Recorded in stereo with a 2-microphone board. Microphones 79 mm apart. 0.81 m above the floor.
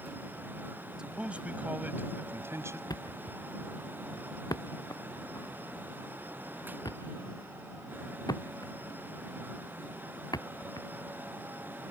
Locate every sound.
1.0 s a man speaking: 10° right (ahead or behind); by 2.8 s 35° right (ahead or behind)
2.9 s a thud: 55° left (ahead or behind)